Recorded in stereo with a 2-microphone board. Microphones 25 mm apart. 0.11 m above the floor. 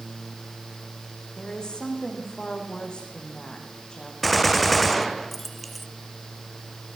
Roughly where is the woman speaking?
Left.